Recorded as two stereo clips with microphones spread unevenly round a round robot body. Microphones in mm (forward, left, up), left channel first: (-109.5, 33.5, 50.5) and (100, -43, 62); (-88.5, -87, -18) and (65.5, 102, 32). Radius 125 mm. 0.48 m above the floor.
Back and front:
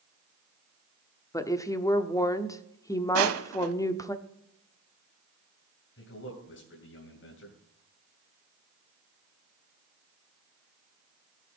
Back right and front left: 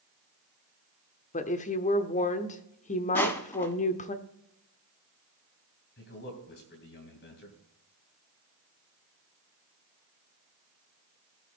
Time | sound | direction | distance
1.3 | a woman speaking | 135° right | 0.9 m
3.1 | crushing | 45° right | 0.8 m
6.0 | a man speaking | 170° right | 3 m